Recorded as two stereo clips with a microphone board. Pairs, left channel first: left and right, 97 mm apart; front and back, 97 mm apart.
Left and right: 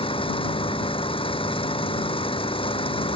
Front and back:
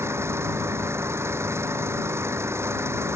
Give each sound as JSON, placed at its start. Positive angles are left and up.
{"t": 0.0, "sound": "an engine running", "azimuth_deg": 115}